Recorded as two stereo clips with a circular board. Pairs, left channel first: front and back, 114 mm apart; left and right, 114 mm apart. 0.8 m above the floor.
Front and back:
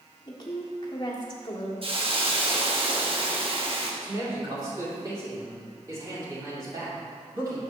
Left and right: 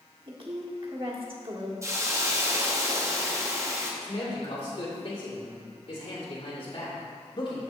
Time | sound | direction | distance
0.3 | a woman speaking | 50° right | 1.5 m
1.8 | a hiss | 150° right | 1.0 m
4.0 | a man speaking | 125° left | 2.5 m